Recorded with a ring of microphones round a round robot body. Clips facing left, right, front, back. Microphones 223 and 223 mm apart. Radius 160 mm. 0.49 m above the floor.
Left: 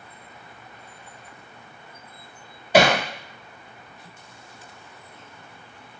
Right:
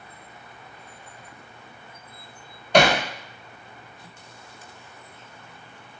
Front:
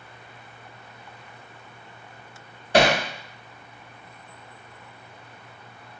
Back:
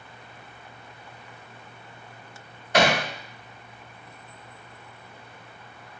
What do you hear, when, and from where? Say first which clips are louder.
2.7 s hammering: left 1 dB, front 3 dB; 10° left, 0.9 m